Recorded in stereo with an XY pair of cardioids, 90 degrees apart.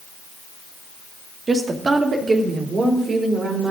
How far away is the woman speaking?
About 2 m.